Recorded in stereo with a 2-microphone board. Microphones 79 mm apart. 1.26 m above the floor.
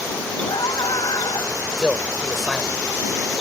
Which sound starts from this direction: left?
A scream, at 0.5 s.